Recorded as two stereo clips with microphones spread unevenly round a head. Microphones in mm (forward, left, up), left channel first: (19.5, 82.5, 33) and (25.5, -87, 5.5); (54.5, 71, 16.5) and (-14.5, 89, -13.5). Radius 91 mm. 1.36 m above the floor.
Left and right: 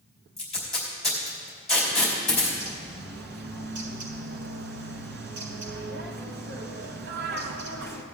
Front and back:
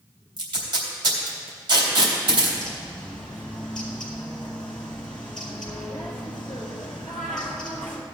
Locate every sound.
0.4 s tape being pulled: straight behind, 3.5 m
2.6 s a bird: 75° right, 1.4 m